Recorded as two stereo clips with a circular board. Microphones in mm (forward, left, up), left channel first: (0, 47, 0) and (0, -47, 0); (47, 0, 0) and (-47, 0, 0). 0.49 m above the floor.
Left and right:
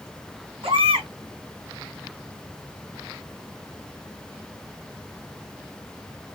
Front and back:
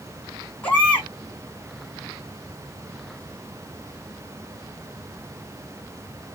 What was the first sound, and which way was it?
A baby crying, 75° right.